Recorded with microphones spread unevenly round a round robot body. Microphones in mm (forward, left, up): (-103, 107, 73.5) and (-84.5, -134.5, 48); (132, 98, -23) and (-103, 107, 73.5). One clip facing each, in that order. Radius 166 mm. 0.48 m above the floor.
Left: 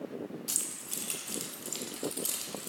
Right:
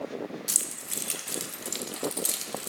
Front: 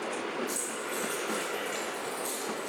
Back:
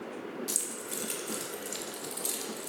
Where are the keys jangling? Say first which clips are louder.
Right 3 dB, front 4 dB; 115° right, 0.8 m.